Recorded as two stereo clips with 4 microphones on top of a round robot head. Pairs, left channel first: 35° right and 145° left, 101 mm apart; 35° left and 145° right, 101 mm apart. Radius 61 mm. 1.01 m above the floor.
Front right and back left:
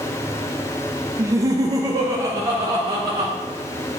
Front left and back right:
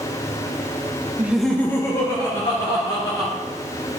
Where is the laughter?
170° left, 0.6 m; by 3.3 s 80° left, 2.5 m.